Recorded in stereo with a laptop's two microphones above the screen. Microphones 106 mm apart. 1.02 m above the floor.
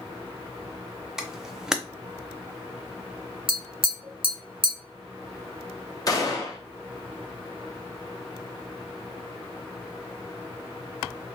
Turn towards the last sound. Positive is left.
turn(degrees=35)  # may be behind; listen again after turning